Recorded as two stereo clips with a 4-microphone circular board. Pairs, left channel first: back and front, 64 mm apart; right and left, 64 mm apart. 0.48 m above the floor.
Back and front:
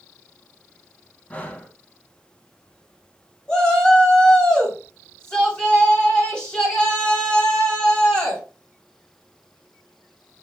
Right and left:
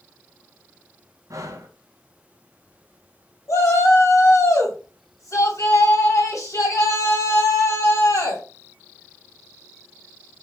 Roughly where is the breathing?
Behind left.